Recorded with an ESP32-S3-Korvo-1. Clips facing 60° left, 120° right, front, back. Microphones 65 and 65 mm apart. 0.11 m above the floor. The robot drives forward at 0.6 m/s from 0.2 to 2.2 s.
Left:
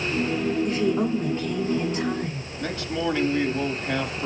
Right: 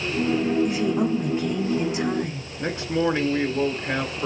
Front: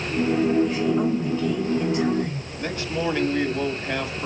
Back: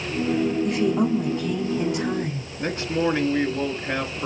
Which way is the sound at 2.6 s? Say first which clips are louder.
Right 4 dB, back 3 dB; 150° right.